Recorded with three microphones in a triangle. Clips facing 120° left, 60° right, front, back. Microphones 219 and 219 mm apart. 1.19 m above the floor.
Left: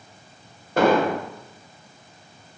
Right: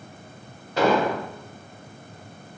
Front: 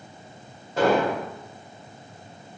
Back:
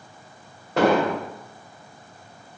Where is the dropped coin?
No dropped coin in this recording.